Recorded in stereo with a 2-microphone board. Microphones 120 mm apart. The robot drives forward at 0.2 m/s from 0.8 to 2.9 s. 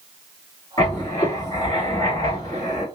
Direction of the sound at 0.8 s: 35° left (ahead or behind).